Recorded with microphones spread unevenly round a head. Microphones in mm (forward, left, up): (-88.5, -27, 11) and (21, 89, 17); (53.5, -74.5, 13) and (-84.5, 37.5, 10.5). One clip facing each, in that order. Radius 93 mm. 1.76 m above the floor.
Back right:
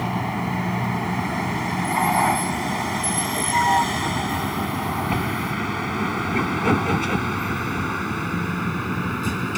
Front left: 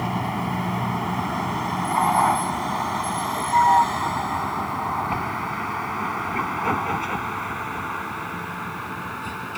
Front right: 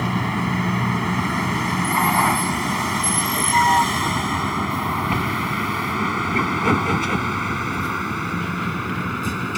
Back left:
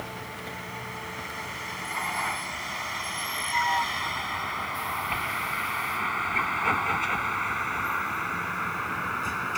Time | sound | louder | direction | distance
0.0 | a vehicle | back right 1 dB, front right 15 dB | 45° right | ?